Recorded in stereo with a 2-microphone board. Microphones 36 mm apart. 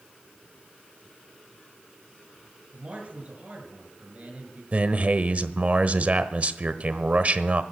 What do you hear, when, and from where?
2.7 s a man speaking: 40° right (ahead or behind), 6.5 m
4.7 s a man speaking: 40° right (ahead or behind), 1.1 m